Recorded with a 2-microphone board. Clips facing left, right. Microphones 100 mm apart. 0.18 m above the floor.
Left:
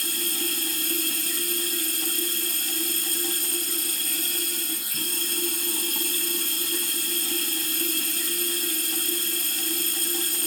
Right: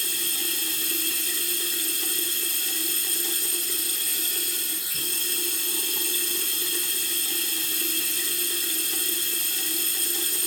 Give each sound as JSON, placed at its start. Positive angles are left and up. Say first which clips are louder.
{"t": 0.0, "sound": "running water", "louder": "left 4 dB", "side_deg": 45, "distance_m": 1.0}